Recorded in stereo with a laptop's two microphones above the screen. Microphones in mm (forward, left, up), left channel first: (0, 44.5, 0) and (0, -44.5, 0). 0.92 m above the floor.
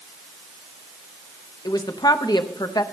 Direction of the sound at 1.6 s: 50° left (ahead or behind).